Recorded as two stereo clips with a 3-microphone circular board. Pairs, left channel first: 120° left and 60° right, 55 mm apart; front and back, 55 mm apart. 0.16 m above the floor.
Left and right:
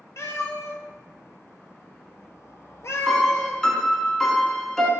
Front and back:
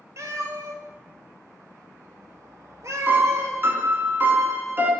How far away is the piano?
About 0.6 m.